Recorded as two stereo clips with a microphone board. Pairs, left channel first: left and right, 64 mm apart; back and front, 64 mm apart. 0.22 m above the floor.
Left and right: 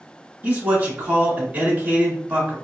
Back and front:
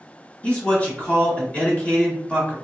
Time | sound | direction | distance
0.4 | a man speaking | 130° right | 1.4 m